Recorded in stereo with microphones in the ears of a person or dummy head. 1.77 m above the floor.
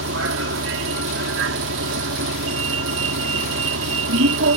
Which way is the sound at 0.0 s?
75° right (ahead or behind).